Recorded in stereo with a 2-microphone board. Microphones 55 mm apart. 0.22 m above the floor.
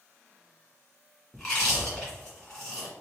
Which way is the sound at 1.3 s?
10° left (ahead or behind).